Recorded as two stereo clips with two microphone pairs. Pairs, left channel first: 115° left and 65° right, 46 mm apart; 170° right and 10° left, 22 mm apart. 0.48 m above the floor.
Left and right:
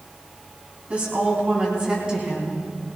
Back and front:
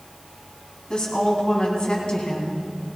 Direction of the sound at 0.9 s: 125° right.